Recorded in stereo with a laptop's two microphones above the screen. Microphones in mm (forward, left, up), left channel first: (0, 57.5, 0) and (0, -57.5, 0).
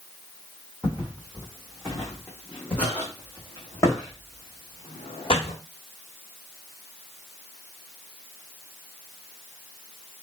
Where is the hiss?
No hiss in this recording.